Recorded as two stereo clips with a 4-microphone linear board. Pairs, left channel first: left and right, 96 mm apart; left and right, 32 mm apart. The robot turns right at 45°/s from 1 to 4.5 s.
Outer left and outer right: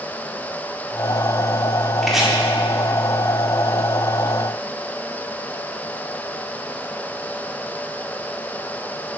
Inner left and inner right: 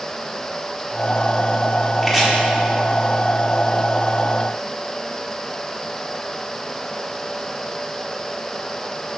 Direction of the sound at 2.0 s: 5° left (ahead or behind).